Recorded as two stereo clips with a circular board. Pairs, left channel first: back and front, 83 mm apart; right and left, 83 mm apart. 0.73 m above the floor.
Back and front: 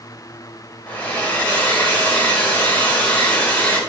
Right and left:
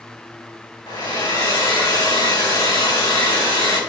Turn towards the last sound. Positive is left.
turn(degrees=-110)